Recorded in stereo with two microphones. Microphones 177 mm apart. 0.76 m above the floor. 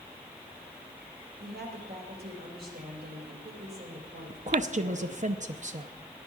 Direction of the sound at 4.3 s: 45° right (ahead or behind).